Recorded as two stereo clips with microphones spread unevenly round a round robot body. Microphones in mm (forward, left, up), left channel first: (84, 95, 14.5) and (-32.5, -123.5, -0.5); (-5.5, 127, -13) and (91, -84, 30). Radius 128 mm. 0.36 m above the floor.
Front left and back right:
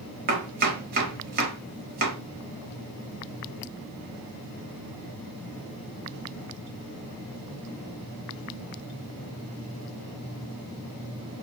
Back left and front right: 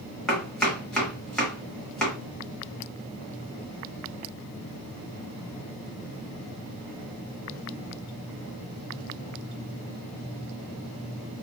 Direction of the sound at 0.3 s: 165° right.